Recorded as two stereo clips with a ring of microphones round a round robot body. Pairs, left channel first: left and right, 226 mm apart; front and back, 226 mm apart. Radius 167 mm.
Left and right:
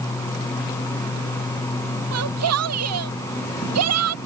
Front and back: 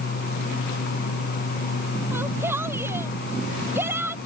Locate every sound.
2.1 s a shout: 95° right